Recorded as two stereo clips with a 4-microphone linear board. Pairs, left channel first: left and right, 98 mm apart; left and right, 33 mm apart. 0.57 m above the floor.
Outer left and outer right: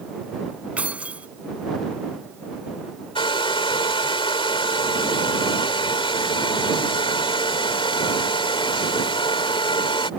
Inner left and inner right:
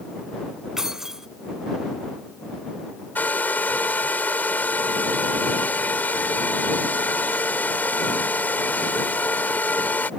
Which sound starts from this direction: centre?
Keys jangling, at 0.8 s.